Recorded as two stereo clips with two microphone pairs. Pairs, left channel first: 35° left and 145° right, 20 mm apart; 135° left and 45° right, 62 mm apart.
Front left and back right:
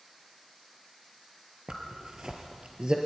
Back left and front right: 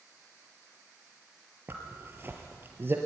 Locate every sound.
1.7 s a zipper: 100° right, 3 m